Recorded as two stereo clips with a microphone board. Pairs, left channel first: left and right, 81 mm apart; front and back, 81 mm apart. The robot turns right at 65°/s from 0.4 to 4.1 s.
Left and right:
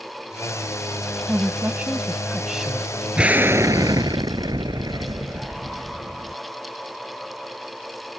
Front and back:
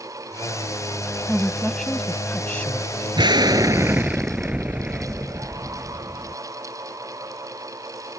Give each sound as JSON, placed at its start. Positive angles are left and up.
{"t": 1.3, "sound": "a woman speaking", "azimuth_deg": -105}
{"t": 3.2, "sound": "an explosion", "azimuth_deg": -170}